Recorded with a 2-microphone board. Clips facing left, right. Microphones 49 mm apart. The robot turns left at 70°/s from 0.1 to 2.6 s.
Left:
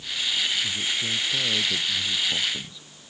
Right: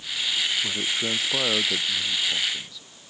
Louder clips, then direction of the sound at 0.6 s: Right 1 dB; 70° right.